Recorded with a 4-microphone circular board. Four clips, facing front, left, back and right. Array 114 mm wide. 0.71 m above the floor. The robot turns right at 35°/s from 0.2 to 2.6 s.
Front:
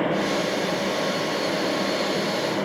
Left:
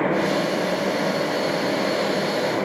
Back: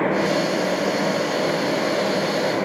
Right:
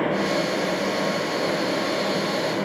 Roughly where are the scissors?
No scissors in this recording.